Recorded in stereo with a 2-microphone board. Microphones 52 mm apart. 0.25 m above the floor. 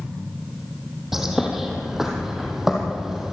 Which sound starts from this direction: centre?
A bird, at 1.1 s.